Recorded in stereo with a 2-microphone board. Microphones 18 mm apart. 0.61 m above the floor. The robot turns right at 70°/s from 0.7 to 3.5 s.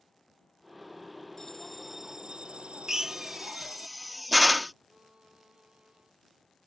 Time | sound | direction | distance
1.4 | a bell | 160° left | ?
2.9 | a drill | 25° right (ahead or behind) | ?
4.9 | a violin | 50° right (ahead or behind) | ?